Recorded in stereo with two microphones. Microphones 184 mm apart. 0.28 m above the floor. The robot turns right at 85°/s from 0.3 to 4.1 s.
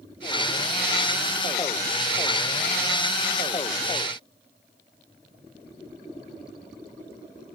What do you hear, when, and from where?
Only background noise.